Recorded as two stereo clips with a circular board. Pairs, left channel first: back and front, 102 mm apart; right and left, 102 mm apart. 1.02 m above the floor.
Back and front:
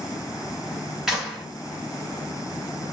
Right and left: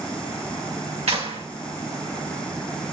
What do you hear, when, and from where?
1.1 s a clap: 85° left, 1.7 m